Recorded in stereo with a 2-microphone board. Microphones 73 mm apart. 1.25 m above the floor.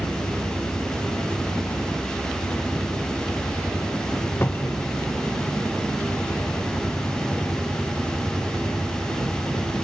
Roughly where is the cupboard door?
Left.